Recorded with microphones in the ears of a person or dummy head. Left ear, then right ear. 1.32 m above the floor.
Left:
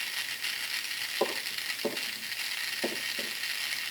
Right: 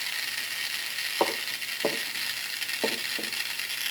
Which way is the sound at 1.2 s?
70° right (ahead or behind).